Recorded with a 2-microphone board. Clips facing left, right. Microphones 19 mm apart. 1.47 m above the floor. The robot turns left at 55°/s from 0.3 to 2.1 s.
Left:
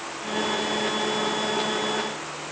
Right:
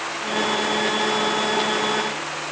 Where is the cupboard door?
I don't hear a cupboard door.